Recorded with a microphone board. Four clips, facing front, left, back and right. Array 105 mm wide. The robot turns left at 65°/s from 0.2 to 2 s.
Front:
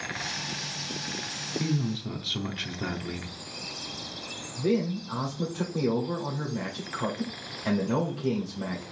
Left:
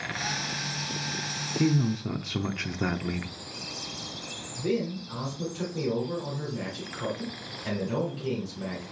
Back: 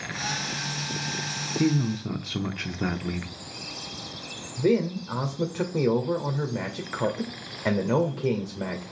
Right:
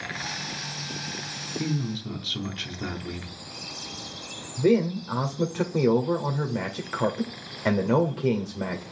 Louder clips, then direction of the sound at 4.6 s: Right 7 dB, back 3 dB; 120° right.